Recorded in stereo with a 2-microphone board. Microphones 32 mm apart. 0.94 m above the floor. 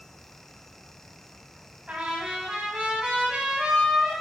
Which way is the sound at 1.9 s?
30° right (ahead or behind).